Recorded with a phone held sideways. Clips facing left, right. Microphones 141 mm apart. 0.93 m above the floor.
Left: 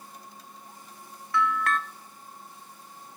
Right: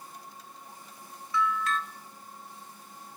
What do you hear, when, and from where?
1.3 s a bell: 60° left (ahead or behind), 0.5 m